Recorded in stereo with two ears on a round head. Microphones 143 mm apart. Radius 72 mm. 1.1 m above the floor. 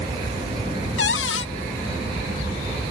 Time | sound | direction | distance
1.0 | a cupboard door | 85° left | ?